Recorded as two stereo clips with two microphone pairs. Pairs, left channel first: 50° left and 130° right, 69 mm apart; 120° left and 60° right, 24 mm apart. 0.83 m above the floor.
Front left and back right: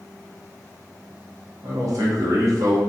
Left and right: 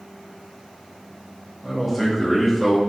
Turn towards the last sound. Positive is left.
turn(degrees=-150)